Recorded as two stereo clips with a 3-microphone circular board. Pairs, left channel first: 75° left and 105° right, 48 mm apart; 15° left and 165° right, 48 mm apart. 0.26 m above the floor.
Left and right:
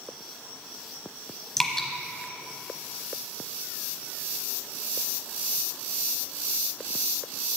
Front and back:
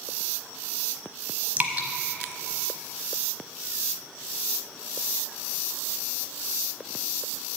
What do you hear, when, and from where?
1.6 s dripping: 145° left, 1.0 m